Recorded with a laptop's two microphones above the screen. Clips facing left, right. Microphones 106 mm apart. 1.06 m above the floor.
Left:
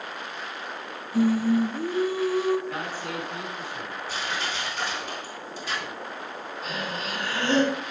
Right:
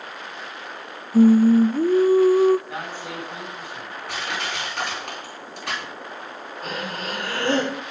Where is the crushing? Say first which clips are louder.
Right 3 dB; 70° right (ahead or behind), 4 m.